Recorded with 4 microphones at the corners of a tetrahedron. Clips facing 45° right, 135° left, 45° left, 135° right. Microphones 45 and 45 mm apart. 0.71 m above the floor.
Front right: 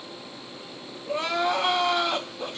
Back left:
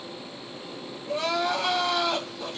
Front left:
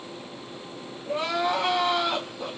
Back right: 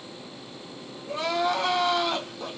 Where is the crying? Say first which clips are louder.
Front right 1 dB, even; 10° right, 1.2 m.